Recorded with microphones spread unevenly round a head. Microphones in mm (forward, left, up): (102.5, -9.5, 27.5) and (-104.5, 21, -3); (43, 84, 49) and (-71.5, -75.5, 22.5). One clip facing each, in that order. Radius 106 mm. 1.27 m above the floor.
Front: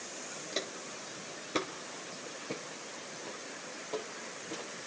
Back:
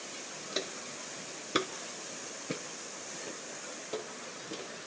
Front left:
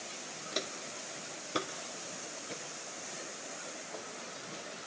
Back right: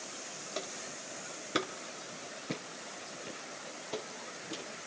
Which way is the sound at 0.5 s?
85° left.